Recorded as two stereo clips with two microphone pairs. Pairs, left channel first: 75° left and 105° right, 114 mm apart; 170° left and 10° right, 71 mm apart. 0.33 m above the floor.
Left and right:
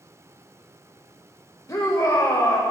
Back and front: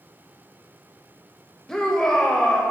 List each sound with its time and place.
1.7 s a shout: 95° left, 1.0 m